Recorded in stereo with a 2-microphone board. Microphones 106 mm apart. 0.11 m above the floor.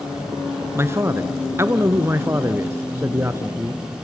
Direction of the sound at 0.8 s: 25° right (ahead or behind).